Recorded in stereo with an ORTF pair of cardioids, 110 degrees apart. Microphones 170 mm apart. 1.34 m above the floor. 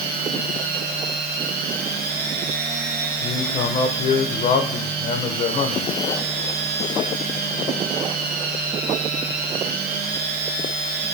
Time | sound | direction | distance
0.0 | a machine running | 65° right | 0.8 m
3.2 | a man speaking | 40° left | 0.6 m